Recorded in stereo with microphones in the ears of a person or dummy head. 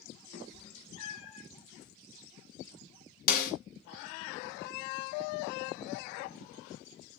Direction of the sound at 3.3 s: 45° left (ahead or behind).